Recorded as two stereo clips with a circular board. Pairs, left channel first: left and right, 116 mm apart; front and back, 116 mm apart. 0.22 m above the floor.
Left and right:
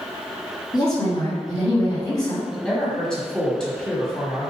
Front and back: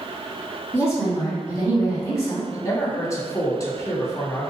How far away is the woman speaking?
About 1.9 m.